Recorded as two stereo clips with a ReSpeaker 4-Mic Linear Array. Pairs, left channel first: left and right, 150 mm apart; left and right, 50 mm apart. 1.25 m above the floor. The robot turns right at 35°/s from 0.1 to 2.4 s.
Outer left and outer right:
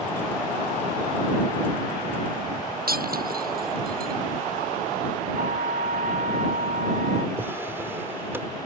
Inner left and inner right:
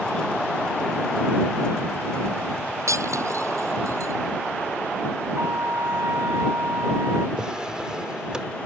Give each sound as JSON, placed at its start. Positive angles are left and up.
{"t": 2.9, "sound": "breaking glass", "side_deg": -80}
{"t": 5.4, "sound": "a trumpet", "side_deg": -70}
{"t": 7.4, "sound": "a drawer", "side_deg": -15}